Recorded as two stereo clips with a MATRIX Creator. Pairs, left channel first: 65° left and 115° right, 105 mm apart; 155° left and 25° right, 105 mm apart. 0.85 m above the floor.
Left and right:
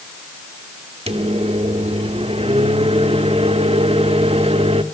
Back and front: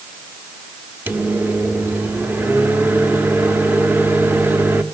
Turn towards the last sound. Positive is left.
turn(degrees=-95)